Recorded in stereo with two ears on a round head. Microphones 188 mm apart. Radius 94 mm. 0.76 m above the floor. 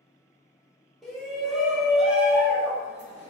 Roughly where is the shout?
Centre.